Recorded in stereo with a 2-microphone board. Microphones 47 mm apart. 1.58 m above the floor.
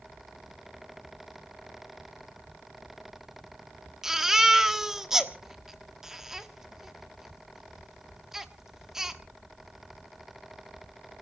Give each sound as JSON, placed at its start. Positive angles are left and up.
{"t": 4.0, "sound": "a baby crying", "side_deg": -10, "distance_m": 1.2}